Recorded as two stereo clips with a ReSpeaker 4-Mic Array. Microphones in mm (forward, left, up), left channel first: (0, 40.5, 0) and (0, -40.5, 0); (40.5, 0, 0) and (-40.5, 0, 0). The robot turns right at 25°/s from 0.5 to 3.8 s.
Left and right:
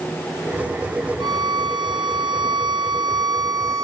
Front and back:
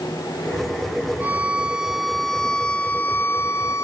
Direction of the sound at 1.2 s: 115° right.